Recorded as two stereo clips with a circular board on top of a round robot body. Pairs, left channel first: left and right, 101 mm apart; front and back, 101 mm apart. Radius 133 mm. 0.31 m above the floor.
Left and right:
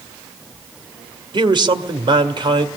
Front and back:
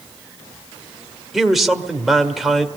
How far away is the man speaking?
About 1.8 m.